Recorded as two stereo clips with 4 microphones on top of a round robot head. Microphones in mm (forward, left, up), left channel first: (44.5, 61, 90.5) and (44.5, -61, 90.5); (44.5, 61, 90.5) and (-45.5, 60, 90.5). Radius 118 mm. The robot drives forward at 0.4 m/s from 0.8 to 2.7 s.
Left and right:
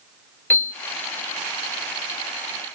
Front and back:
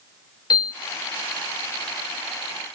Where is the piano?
25° left, 0.7 m.